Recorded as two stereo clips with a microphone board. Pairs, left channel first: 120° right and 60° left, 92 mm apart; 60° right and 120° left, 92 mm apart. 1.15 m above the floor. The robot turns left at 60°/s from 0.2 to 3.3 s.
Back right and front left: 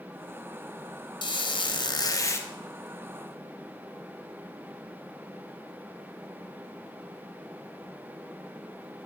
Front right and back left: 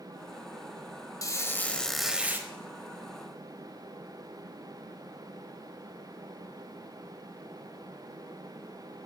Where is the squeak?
105° right, 0.7 m; by 2.5 s straight behind, 0.7 m.